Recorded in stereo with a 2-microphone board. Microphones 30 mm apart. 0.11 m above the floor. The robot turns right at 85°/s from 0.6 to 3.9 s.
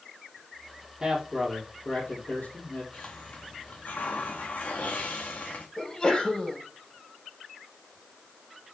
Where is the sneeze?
20° left (ahead or behind), 4.5 m.